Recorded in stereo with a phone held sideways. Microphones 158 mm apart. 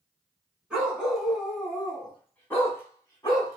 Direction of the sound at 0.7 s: 5° right (ahead or behind).